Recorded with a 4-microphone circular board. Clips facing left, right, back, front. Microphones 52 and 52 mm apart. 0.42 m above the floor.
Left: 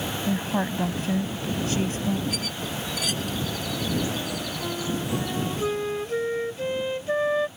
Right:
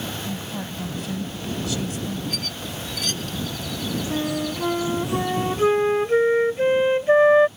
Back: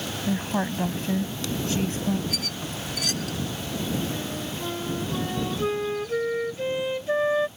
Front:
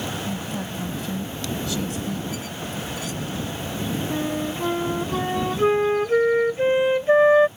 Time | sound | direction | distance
0.3 | a woman speaking | 135° left | ?
2.3 | a squeak | 175° left | ?
4.1 | a flute | 45° right | ?